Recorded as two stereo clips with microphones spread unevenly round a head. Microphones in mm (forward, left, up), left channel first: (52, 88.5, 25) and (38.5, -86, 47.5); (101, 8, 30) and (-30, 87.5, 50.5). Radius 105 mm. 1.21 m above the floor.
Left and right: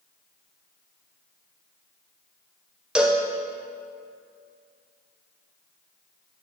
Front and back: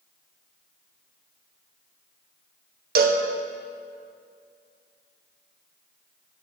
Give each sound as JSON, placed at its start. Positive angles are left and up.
{"t": 3.0, "sound": "a cowbell", "azimuth_deg": 175, "distance_m": 0.6}